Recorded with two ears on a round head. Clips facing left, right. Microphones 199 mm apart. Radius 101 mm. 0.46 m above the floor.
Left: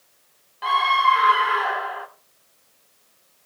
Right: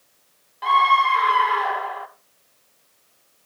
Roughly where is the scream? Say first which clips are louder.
Right 2 dB; centre.